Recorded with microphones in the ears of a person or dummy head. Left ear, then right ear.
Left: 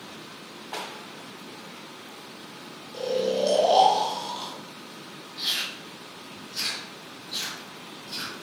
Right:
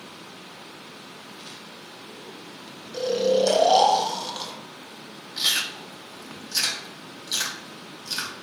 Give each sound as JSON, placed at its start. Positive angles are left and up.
{"t": 2.9, "sound": "snoring", "side_deg": -20, "distance_m": 0.7}
{"t": 5.4, "sound": "chewing", "side_deg": -70, "distance_m": 0.8}